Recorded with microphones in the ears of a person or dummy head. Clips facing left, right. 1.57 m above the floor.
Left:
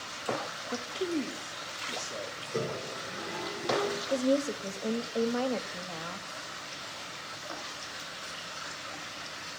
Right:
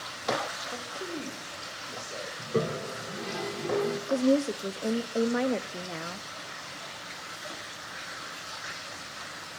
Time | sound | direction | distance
0.7 | a man speaking | 40° left (ahead or behind) | 0.7 m
2.4 | a toilet flushing | 55° right (ahead or behind) | 1.2 m
4.1 | a woman speaking | 25° right (ahead or behind) | 0.5 m